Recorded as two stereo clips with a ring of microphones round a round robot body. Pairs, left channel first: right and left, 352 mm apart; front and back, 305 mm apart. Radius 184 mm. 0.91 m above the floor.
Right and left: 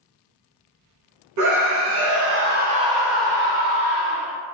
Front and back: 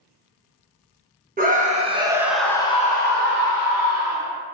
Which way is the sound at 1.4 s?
120° left.